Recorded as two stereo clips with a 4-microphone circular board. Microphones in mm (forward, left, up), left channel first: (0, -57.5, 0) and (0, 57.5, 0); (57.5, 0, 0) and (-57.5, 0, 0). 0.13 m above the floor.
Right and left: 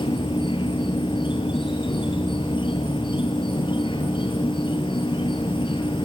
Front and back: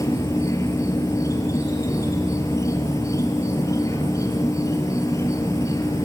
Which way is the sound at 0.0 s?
55° right.